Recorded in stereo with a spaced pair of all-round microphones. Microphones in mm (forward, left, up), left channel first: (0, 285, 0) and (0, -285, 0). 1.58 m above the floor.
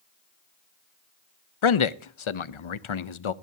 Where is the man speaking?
65° left (ahead or behind), 0.6 m.